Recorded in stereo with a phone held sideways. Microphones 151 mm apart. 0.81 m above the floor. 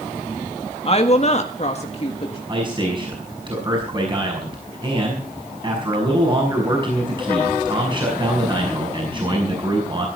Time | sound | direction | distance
0.8 | a woman speaking | 40° left (ahead or behind) | 1.5 m
2.5 | a man speaking | 30° right (ahead or behind) | 5.5 m